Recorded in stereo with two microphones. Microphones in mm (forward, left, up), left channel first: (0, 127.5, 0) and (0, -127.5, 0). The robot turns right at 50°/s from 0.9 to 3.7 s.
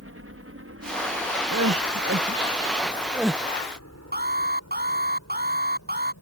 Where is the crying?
85° right; by 3.4 s 5° left (ahead or behind).